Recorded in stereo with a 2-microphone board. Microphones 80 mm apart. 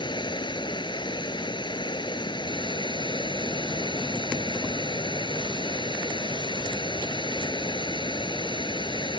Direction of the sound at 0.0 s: 75° left (ahead or behind).